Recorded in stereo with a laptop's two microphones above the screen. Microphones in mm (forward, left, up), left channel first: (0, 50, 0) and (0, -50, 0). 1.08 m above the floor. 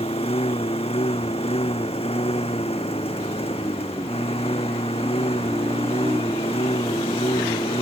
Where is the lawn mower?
85° left.